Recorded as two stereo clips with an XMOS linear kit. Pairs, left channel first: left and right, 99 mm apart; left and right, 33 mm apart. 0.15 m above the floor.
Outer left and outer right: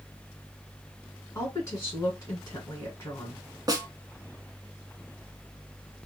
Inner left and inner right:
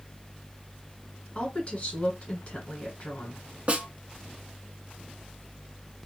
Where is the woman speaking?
30° left (ahead or behind), 1.8 m.